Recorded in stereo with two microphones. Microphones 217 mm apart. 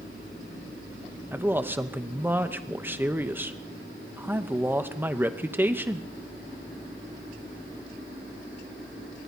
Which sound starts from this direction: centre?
A man speaking, at 1.3 s.